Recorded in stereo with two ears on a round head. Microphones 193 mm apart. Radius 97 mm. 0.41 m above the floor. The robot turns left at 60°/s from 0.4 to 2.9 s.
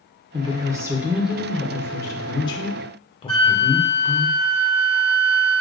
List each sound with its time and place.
0.3 s a woman speaking: 20° right (ahead or behind), 0.8 m; by 4.3 s 25° left (ahead or behind), 0.8 m
3.3 s a flute: 25° left (ahead or behind), 1.4 m